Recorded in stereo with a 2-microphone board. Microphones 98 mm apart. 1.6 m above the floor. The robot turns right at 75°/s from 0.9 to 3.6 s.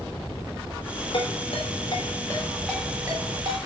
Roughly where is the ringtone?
Left.